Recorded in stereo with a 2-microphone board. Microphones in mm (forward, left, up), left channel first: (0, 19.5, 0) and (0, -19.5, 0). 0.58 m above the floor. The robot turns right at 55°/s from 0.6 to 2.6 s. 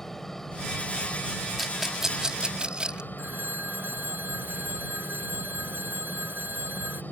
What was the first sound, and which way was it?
A helicopter, 10° left.